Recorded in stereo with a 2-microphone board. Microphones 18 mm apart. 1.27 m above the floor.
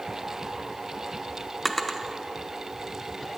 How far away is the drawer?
About 1.0 m.